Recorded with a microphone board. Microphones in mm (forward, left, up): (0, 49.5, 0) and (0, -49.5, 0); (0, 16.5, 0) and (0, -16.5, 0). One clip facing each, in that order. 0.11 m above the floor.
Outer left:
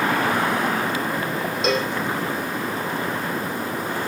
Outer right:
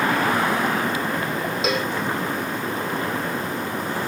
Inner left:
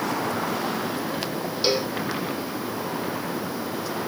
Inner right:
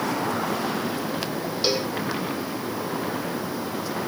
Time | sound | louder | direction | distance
1.6 | a cowbell | outer left 3 dB, inner left 1 dB | 5° right (ahead or behind) | 4 m